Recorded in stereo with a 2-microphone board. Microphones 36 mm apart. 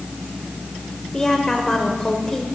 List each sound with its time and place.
1.1 s a woman speaking: 15° left (ahead or behind), 1.6 m